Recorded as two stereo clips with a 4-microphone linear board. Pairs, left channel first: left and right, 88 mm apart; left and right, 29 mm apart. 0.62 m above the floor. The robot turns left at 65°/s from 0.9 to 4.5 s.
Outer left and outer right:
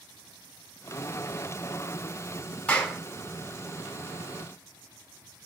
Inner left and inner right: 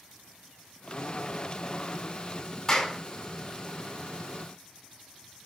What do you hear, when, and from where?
2.7 s a clap: 15° left (ahead or behind), 1.5 m; by 3.0 s 5° right (ahead or behind), 1.5 m